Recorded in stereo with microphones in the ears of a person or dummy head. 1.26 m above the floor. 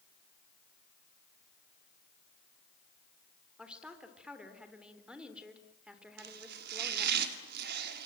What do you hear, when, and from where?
3.6 s a woman speaking: 5° right (ahead or behind), 3.5 m
6.2 s chopping: 55° right (ahead or behind), 2.5 m